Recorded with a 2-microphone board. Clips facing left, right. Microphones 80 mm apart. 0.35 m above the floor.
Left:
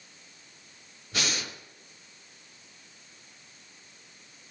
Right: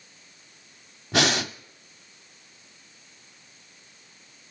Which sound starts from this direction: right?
Breathing, at 1.1 s.